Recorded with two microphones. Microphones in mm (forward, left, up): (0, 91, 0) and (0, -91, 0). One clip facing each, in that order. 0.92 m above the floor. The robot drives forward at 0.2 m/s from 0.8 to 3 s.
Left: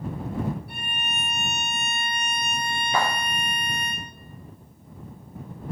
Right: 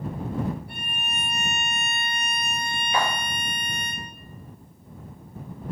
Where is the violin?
75° left (ahead or behind), 1.8 m; by 3.9 s 65° left (ahead or behind), 2.0 m.